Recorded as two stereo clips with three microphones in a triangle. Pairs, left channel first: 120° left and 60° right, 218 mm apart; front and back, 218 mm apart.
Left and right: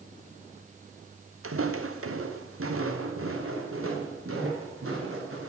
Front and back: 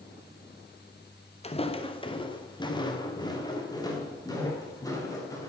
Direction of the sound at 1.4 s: 60° right.